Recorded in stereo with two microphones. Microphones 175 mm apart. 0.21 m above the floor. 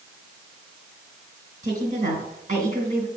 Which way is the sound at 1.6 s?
50° right (ahead or behind).